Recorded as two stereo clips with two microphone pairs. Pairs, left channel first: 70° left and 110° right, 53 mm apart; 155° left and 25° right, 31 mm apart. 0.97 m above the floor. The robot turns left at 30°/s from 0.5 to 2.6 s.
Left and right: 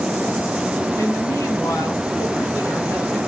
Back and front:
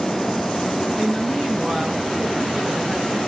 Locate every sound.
0.9 s a woman speaking: 80° left, 7 m; by 3.2 s 30° left, 7 m